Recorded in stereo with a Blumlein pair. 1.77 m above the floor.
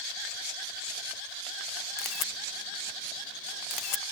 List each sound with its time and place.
2.0 s a camera shutter: 35° left, 0.6 m